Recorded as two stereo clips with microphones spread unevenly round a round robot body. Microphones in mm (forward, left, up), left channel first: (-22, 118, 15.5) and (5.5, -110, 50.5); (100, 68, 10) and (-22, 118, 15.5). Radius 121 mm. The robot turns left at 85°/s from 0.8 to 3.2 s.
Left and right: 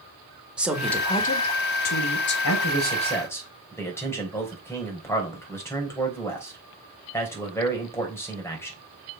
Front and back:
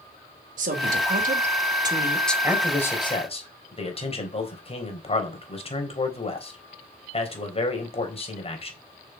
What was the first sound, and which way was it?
A woman speaking, 170° right.